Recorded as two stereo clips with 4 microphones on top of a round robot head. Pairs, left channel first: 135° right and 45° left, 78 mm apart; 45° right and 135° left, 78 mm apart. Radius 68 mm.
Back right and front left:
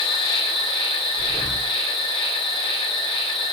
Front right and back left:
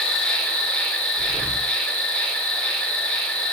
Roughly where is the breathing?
Behind.